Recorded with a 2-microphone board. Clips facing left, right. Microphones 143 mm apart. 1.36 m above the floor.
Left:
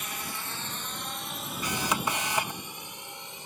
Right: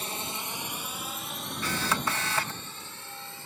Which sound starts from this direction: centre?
A camera shutter, at 1.6 s.